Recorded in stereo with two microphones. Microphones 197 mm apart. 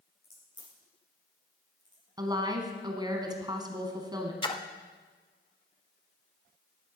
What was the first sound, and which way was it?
A crack, 70° left (ahead or behind).